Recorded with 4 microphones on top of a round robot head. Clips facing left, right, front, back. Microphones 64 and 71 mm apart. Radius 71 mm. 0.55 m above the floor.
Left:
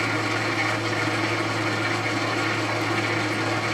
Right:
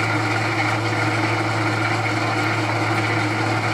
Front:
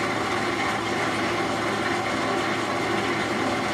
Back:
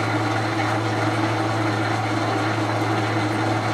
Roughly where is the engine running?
Behind right.